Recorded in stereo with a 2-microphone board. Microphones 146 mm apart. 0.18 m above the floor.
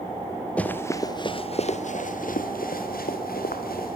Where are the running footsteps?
10° left (ahead or behind), 2.5 m; by 4.0 s 85° left, 4.5 m.